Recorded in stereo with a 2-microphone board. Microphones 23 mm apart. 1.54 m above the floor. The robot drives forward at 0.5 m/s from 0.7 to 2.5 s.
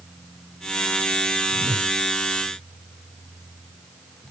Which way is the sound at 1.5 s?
20° left (ahead or behind).